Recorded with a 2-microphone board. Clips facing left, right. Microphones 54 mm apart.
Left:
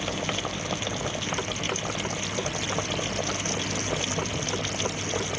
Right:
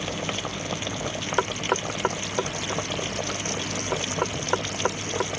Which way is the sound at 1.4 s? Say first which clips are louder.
Right 5 dB; 65° right (ahead or behind).